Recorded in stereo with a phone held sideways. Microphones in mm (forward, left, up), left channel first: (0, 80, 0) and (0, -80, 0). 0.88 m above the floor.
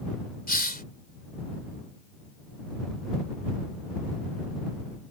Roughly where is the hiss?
Left.